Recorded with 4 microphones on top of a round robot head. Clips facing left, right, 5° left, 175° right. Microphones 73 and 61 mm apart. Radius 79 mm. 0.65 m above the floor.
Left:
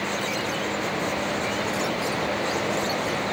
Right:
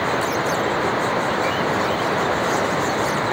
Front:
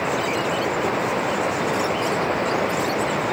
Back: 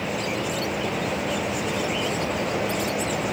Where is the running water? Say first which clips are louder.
Right 7 dB, front 5 dB; 45° right.